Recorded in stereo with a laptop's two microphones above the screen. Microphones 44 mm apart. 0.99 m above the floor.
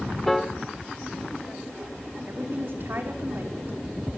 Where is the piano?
5° left (ahead or behind), 1.1 m.